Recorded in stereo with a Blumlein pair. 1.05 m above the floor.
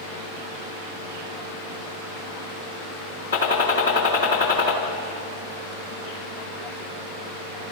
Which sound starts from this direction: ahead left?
A gunshot, at 3.3 s.